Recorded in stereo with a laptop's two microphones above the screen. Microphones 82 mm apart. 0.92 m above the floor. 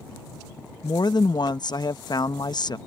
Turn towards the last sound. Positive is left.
turn(degrees=60)  # may be behind; listen again after turning